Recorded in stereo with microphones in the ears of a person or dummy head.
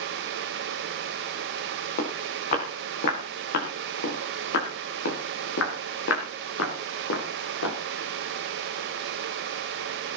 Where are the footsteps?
40° left (ahead or behind), 6 m; by 7.8 s 75° left (ahead or behind), 6.5 m.